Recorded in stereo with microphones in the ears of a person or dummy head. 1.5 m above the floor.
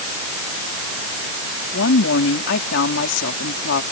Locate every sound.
1.7 s a woman speaking: 70° left (ahead or behind)